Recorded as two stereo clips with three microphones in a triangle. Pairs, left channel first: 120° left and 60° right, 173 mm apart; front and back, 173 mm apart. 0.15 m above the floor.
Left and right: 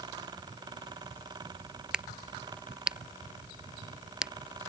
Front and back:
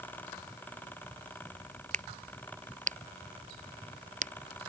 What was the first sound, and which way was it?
A crack, 145° right.